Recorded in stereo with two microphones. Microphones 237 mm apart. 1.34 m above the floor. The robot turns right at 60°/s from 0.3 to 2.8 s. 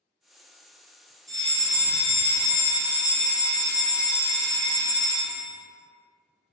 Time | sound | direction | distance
1.3 | a fire alarm | 70° left | 1.6 m